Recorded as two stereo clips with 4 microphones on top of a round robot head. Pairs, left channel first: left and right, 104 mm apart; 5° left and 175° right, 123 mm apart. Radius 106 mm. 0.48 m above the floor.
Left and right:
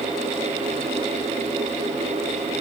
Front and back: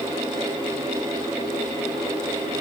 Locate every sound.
Only background noise.